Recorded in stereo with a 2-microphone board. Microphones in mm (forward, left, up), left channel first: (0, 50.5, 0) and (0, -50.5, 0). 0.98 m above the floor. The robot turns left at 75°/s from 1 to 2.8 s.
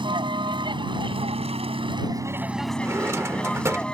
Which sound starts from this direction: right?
A drawer, at 2.8 s.